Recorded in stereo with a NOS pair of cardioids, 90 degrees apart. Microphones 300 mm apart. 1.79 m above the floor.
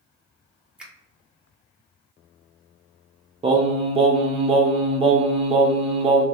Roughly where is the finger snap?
Ahead.